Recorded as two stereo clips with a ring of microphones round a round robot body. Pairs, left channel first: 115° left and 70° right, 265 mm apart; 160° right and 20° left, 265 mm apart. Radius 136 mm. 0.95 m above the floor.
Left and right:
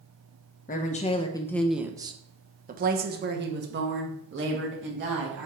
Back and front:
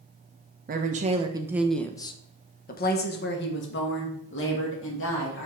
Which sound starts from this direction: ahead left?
A woman speaking, at 0.7 s.